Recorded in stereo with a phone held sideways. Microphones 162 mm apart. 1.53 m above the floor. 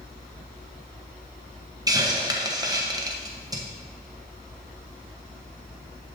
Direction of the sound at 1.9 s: 25° right (ahead or behind).